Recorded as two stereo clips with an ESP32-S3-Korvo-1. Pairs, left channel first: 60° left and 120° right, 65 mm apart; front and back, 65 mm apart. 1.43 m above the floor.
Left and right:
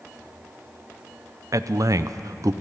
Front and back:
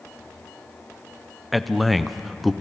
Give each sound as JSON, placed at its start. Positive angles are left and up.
{"t": 1.5, "sound": "a man speaking", "azimuth_deg": -90, "distance_m": 0.6}